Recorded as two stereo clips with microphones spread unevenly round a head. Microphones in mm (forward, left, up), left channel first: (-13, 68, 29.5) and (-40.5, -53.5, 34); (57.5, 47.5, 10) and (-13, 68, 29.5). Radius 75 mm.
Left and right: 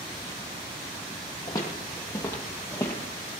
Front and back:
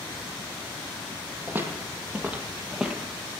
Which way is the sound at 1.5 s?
125° left.